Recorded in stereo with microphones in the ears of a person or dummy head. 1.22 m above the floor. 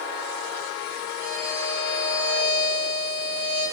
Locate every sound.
1.2 s a violin: 65° right (ahead or behind), 7.5 m